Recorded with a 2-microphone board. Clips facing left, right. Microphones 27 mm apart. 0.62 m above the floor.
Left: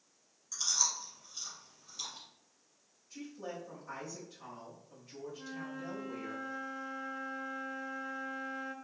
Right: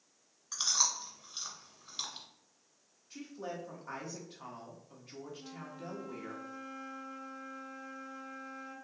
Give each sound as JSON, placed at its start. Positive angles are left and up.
{"t": 0.5, "sound": "chewing", "side_deg": -50, "distance_m": 1.1}
{"t": 3.1, "sound": "a woman speaking", "side_deg": -35, "distance_m": 1.0}
{"t": 5.3, "sound": "a flute", "side_deg": 80, "distance_m": 0.7}